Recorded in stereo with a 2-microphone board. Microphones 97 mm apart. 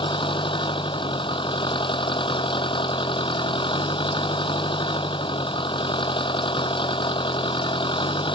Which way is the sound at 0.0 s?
60° left (ahead or behind).